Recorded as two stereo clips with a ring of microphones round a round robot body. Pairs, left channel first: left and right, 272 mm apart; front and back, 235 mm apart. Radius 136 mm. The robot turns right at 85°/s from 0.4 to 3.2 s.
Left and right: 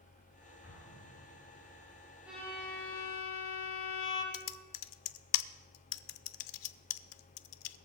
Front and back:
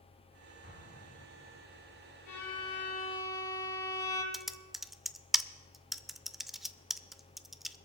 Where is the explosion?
45° left, 8 m; by 1.7 s 135° left, 8 m.